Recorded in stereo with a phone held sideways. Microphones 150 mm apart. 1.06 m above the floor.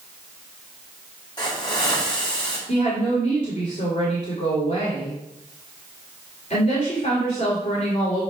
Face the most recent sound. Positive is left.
turn(degrees=55)  # may be behind; listen again after turning